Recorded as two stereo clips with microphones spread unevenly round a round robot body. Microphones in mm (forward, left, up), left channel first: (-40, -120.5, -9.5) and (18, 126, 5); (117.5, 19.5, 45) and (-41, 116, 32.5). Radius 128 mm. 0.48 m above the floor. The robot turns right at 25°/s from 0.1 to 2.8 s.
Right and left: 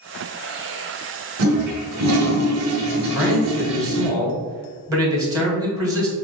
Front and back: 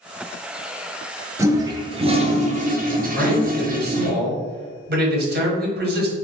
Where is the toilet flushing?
75° left, 0.9 m; by 4.1 s 110° left, 0.9 m.